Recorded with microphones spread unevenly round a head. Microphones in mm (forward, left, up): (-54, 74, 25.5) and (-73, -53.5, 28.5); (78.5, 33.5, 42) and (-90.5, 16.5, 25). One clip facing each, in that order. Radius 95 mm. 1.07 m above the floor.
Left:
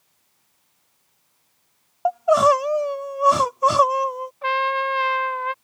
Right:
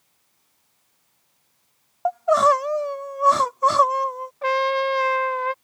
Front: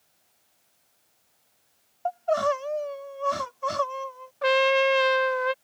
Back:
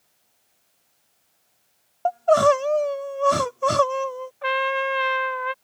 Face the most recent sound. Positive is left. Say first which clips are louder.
# right 2 dB, front 5 dB
turn(degrees=-40)